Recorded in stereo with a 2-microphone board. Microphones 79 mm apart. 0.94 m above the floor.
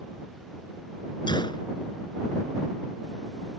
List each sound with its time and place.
1.3 s a gunshot: 70° left (ahead or behind)